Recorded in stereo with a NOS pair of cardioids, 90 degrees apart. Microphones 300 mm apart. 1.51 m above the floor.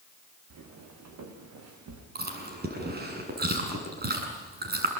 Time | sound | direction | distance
0.5 | footsteps | 60° right | 5 m
2.1 | chewing | 30° right | 7.5 m